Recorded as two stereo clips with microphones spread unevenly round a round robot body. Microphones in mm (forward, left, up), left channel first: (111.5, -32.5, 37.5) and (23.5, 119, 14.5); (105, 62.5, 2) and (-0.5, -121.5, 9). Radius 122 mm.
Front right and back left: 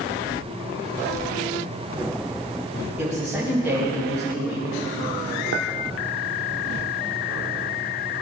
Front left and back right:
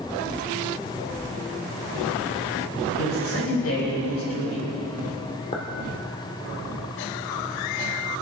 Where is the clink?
130° left, 1.8 m.